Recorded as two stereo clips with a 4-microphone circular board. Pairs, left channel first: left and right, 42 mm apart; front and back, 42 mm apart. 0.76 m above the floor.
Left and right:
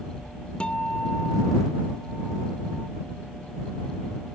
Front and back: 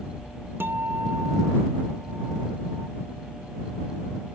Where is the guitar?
155° left.